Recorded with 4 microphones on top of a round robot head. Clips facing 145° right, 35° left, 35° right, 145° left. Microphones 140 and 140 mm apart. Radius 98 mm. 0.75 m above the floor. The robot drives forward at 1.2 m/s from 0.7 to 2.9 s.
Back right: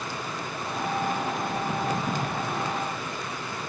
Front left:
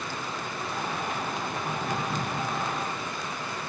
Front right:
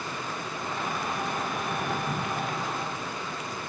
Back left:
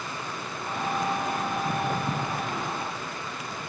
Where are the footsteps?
165° left, 0.9 m; by 2.4 s 175° left, 1.7 m.